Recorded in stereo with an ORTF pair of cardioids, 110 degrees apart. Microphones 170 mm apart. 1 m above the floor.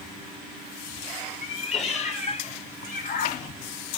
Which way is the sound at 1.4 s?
35° left.